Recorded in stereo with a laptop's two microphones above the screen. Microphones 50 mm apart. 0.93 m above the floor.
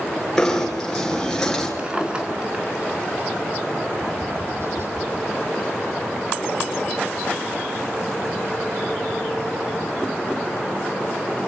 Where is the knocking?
10° left (ahead or behind), 9.5 m.